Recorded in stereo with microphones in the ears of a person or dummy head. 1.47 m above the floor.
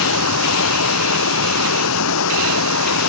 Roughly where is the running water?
Left.